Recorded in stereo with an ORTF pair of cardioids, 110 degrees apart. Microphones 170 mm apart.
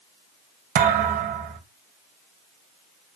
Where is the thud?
60° right, 2.5 m.